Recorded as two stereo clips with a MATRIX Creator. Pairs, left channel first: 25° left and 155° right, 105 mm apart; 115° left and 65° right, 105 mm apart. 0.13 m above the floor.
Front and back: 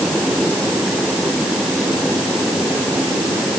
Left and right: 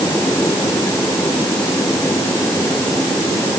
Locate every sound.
Only background noise.